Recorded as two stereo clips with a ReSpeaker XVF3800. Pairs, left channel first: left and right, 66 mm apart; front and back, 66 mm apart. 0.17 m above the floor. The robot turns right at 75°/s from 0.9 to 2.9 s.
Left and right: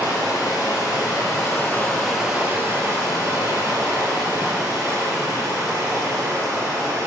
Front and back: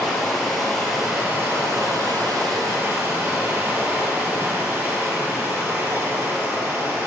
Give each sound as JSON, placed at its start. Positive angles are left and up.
{"t": 0.0, "sound": "running water", "azimuth_deg": 90, "distance_m": 3.0}